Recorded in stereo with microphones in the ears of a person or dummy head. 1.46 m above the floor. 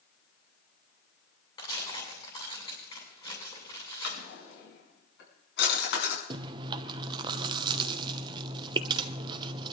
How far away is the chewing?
About 0.7 m.